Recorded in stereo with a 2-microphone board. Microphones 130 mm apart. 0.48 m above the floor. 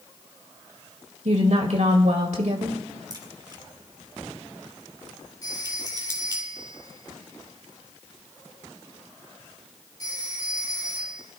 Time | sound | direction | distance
1.2 | a woman speaking | 65° right (ahead or behind) | 1.7 m
3.1 | a crack | 35° right (ahead or behind) | 2.5 m
5.4 | a phone ringing | 30° left (ahead or behind) | 7 m